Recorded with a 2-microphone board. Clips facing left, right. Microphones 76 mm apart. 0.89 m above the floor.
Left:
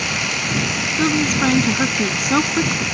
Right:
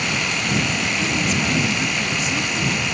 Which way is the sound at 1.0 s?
60° left (ahead or behind).